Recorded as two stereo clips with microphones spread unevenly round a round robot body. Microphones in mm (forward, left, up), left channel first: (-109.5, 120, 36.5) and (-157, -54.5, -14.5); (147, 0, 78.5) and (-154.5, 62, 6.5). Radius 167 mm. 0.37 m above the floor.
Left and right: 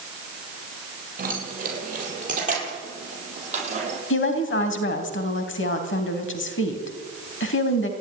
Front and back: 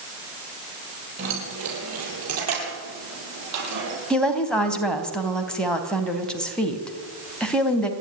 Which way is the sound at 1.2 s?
145° right.